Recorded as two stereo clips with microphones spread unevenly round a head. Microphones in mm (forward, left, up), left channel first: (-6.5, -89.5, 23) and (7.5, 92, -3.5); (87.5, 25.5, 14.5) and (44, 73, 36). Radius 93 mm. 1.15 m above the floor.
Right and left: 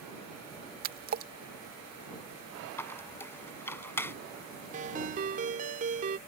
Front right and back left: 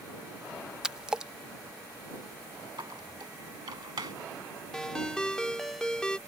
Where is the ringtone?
35° left.